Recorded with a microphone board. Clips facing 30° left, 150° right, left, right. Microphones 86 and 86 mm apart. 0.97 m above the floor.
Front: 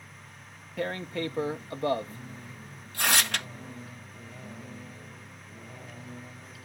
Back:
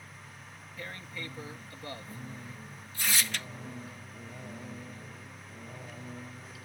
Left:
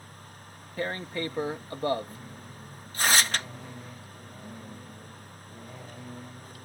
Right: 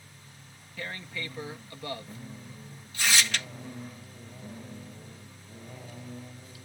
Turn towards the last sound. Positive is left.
turn(degrees=45)